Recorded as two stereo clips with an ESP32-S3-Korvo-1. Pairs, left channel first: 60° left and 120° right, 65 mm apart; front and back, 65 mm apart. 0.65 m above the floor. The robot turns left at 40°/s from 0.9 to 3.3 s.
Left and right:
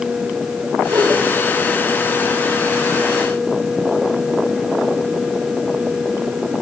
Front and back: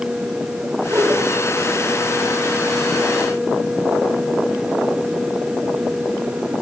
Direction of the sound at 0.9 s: 135° right.